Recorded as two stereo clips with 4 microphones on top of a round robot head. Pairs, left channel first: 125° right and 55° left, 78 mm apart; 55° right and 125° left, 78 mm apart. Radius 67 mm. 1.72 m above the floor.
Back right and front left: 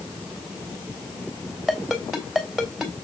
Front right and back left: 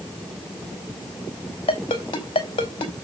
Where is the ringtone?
35° right, 3 m.